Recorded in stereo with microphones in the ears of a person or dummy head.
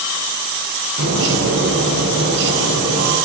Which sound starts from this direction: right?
A bird, at 1.0 s.